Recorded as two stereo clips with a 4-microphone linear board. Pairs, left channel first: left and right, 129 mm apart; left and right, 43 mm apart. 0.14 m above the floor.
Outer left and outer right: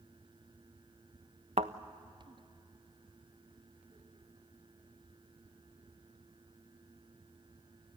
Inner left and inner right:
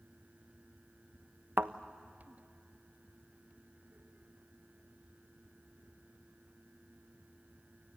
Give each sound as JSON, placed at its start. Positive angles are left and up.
{"t": 1.6, "sound": "a thud", "side_deg": -60, "distance_m": 1.0}